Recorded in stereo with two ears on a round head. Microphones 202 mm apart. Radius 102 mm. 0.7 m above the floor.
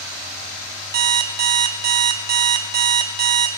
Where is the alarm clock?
45° right (ahead or behind), 0.8 m.